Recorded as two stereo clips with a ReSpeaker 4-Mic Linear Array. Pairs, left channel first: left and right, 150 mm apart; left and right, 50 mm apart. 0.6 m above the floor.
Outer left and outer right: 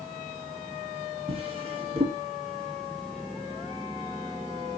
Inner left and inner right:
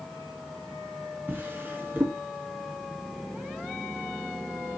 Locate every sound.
1.3 s a drawer: 40° right (ahead or behind), 1.6 m